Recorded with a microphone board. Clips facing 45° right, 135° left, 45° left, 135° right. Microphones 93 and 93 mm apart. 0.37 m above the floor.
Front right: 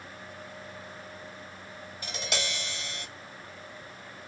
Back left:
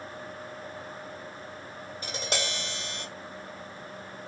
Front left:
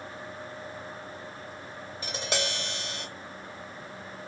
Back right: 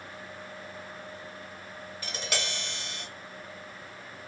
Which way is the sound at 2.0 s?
105° left.